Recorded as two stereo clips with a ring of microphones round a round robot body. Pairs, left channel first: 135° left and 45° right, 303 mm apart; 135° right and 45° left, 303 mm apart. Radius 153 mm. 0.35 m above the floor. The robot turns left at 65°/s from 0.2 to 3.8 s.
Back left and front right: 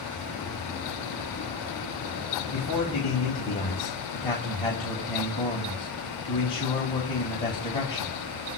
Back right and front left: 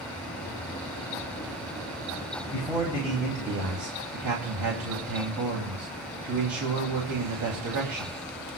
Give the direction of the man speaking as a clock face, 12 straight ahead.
7 o'clock.